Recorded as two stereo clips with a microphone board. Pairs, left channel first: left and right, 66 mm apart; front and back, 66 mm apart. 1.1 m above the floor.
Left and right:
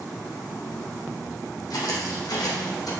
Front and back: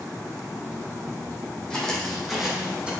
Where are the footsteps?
75° left, 2.5 m; by 2.9 s 110° left, 2.5 m.